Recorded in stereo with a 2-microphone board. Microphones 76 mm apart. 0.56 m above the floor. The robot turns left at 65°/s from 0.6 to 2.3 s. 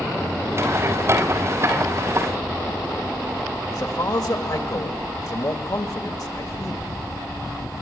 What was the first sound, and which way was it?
A man speaking, 55° left (ahead or behind).